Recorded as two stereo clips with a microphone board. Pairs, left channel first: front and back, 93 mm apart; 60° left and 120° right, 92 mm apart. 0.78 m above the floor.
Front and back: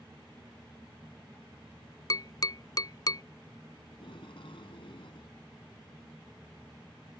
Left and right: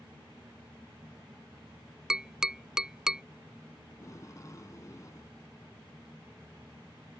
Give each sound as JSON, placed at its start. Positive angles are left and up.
{"t": 2.1, "sound": "tapping", "azimuth_deg": -40}
{"t": 3.9, "sound": "tape being pulled", "azimuth_deg": 10}